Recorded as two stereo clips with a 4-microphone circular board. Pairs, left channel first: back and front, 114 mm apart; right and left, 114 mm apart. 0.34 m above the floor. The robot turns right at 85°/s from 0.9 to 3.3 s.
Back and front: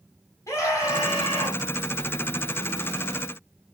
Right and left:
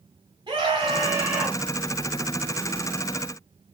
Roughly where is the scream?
Behind left.